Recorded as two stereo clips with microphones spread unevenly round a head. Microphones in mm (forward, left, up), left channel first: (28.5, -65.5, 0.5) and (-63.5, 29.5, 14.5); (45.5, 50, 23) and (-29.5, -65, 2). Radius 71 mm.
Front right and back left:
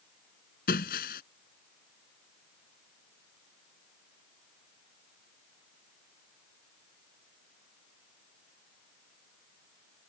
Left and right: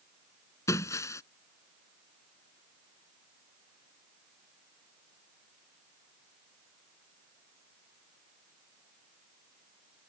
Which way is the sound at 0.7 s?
10° right.